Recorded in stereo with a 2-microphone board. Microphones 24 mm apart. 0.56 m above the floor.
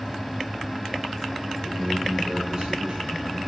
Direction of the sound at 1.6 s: 20° right (ahead or behind).